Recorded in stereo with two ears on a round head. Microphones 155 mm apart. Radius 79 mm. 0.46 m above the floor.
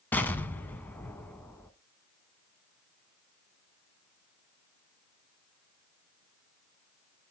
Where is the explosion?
10° left (ahead or behind), 0.8 m.